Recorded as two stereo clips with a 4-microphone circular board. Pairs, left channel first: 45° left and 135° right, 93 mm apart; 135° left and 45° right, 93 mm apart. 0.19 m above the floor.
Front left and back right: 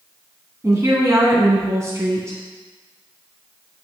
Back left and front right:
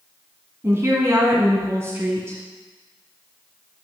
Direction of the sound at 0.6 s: 90° right.